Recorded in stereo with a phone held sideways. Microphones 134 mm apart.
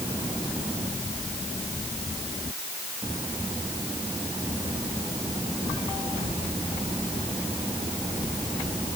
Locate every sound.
Only background noise.